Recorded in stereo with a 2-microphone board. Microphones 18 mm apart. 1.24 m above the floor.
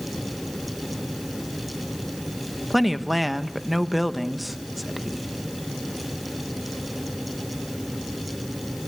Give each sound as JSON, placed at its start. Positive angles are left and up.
{"t": 2.7, "sound": "a woman speaking", "side_deg": -5, "distance_m": 1.2}